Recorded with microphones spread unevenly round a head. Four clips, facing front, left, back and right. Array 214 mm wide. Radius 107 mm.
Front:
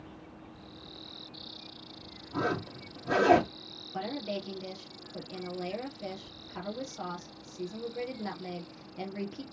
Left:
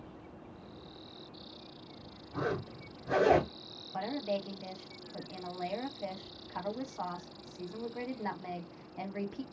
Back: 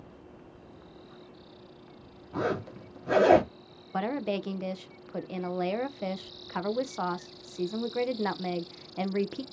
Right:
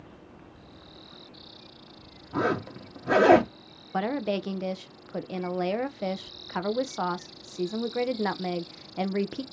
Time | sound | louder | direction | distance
2.3 | a zipper | right 8 dB, back 1 dB | 85° right | 1.2 m
3.9 | a woman speaking | right 7 dB, back 5 dB | 105° right | 0.6 m